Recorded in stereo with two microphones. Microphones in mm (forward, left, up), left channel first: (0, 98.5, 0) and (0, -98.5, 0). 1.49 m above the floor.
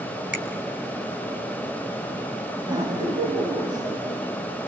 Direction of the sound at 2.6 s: 25° right (ahead or behind).